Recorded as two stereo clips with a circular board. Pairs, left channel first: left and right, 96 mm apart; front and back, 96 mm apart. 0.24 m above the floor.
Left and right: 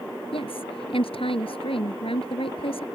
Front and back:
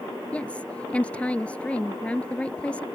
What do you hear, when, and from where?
0.3 s a woman speaking: 75° left